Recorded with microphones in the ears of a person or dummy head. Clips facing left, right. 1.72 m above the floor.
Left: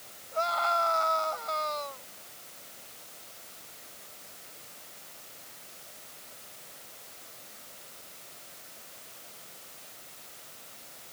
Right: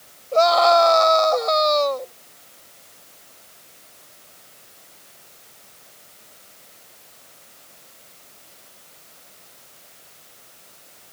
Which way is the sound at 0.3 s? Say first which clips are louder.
Right 16 dB; 85° right.